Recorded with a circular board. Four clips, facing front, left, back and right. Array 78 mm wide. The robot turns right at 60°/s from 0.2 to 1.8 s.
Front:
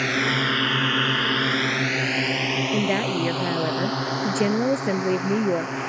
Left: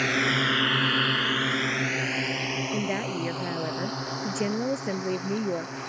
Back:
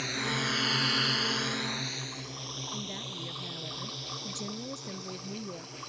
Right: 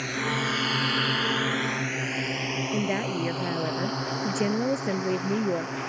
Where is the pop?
No pop in this recording.